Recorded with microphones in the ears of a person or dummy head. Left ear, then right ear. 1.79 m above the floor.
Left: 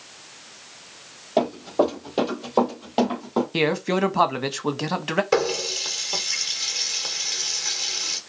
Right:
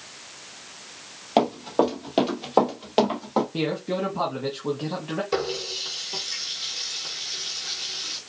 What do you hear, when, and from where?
1.4 s running footsteps: 50° right (ahead or behind), 2.5 m; by 3.4 s 20° right (ahead or behind), 2.5 m
3.5 s a man speaking: 65° left (ahead or behind), 1.1 m
5.3 s a running tap: 35° left (ahead or behind), 1.5 m